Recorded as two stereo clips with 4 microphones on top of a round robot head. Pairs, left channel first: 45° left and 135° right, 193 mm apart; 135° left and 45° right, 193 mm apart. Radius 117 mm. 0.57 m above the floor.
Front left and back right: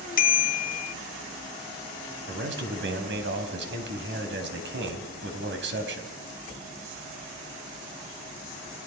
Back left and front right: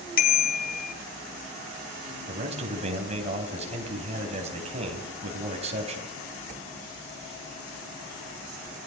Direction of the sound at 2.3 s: 105° right.